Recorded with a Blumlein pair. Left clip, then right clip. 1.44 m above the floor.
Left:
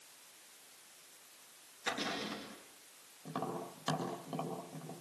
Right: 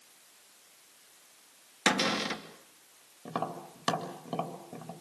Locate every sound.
1.9 s a cupboard door: 40° right, 3 m
3.2 s tapping: 25° right, 3.5 m